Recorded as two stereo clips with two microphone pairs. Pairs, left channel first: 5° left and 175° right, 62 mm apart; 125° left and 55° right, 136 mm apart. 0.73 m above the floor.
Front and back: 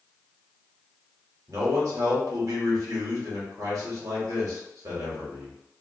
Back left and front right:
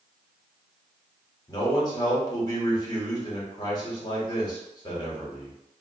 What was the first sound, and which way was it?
A man speaking, 175° left.